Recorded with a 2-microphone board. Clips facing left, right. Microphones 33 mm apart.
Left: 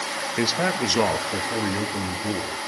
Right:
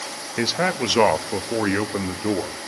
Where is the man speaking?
5° right (ahead or behind), 0.8 m; by 2.6 s 45° right (ahead or behind), 1.8 m.